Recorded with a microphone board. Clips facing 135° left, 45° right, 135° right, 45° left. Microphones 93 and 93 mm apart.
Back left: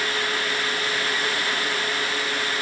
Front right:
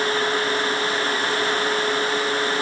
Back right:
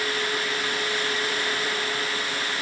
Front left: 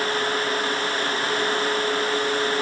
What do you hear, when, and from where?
Only background noise.